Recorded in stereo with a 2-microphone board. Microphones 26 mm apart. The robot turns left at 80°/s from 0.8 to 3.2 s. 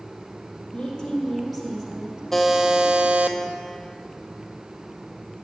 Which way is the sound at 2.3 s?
15° left.